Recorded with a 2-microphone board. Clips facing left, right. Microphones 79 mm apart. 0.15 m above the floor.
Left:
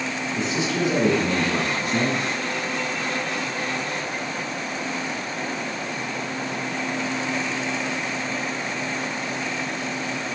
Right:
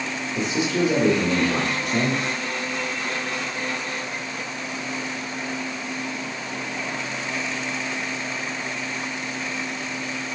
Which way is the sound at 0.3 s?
20° right (ahead or behind).